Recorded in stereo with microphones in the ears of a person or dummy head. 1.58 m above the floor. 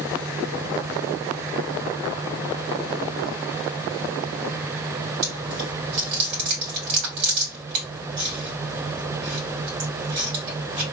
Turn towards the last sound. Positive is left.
turn(degrees=-40)  # may be behind; listen again after turning